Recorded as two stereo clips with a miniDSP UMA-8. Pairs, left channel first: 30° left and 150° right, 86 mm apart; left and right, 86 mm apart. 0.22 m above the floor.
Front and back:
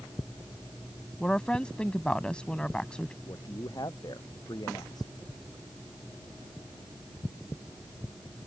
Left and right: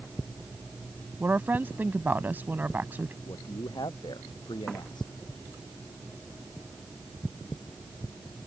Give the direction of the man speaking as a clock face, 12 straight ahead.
10 o'clock.